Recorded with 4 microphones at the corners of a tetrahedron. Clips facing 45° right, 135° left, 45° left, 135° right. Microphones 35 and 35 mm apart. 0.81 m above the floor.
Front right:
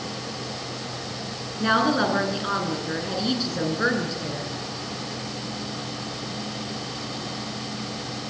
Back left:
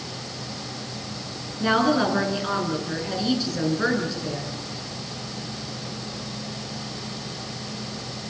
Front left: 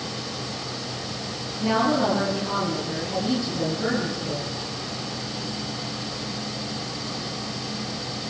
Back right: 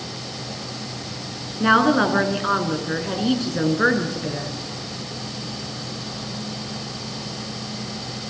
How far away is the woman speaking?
About 9 m.